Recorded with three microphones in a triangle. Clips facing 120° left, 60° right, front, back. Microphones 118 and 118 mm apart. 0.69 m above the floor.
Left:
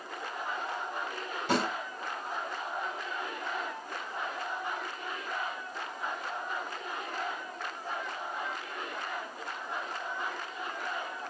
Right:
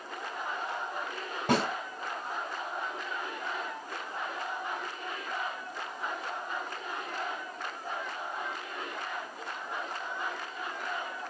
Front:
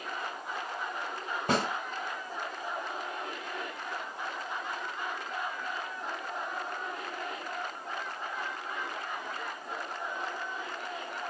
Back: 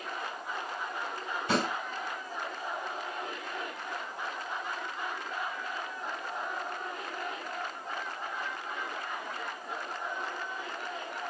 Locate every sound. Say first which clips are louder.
1.5 s a snare drum: right 2 dB, even; 30° right, 3 m